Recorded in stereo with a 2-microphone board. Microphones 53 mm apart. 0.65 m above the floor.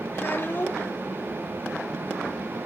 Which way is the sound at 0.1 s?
45° left (ahead or behind).